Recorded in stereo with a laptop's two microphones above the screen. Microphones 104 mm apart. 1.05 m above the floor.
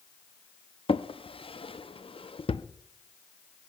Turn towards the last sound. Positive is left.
turn(degrees=60)  # may be behind; listen again after turning